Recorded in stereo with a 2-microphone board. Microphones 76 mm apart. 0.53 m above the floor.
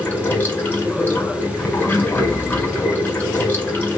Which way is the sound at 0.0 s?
25° left (ahead or behind).